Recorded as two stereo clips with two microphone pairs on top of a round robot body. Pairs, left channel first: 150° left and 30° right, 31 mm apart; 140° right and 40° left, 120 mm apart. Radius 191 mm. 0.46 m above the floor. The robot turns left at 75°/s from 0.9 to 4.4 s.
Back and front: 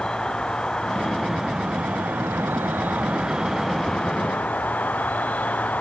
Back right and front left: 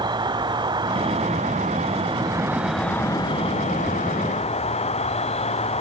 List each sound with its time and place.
0.0 s an insect: 85° left, 1.1 m; by 5.8 s 175° right, 1.1 m